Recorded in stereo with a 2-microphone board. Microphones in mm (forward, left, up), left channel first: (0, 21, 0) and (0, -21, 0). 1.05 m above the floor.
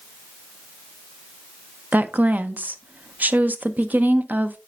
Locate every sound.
1.9 s a woman speaking: 40° right (ahead or behind), 0.6 m